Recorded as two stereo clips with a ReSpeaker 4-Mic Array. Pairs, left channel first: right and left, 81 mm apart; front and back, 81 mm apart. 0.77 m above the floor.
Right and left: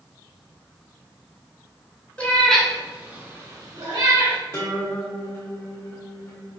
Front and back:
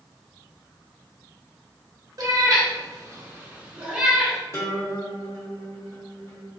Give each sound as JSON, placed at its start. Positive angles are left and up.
{"t": 2.2, "sound": "a cat meowing", "azimuth_deg": -160, "distance_m": 1.1}
{"t": 4.5, "sound": "a guitar", "azimuth_deg": -40, "distance_m": 1.0}